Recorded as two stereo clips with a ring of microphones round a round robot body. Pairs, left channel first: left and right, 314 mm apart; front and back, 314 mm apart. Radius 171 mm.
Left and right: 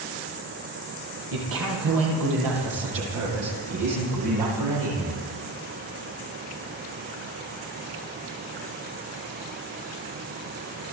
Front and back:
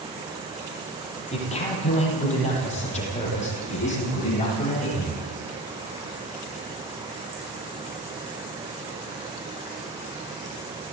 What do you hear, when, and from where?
1.3 s a man speaking: 70° right, 9.5 m; by 5.2 s 65° right, 13.5 m